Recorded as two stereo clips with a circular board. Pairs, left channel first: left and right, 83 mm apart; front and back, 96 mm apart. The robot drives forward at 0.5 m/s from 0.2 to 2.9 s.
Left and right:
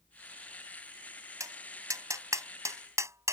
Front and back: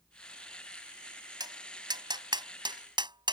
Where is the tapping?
140° right; by 3.3 s 145° right.